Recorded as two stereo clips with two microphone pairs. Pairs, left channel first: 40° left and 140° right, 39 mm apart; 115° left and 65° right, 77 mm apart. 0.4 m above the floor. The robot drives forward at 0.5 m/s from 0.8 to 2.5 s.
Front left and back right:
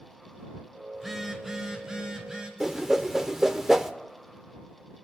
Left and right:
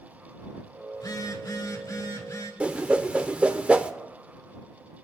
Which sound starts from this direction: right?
A whoosh, at 2.6 s.